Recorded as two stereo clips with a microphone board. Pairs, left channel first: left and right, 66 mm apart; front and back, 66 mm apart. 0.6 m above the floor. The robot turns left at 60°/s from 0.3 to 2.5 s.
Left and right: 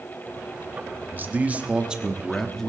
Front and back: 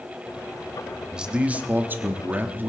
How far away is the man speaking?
About 1.1 m.